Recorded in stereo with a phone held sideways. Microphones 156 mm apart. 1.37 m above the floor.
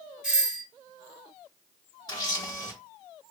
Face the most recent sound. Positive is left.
turn(degrees=25)  # may be behind; listen again after turning